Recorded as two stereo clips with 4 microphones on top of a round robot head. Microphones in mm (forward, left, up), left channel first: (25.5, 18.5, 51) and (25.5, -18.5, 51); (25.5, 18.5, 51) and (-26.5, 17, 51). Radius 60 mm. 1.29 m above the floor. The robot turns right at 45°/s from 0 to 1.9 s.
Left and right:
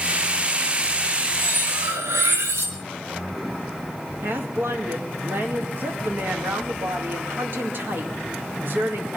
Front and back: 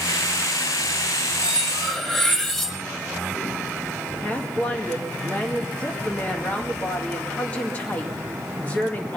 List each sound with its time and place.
1.4 s cutlery clinking: 105° right, 1.5 m; by 2.8 s 80° right, 1.5 m
4.2 s a woman speaking: 60° right, 2 m